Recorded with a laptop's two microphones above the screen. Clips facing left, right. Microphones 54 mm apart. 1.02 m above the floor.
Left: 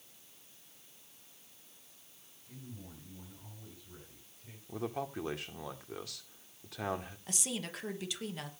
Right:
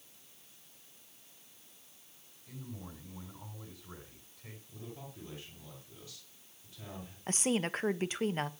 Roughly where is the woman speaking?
Right.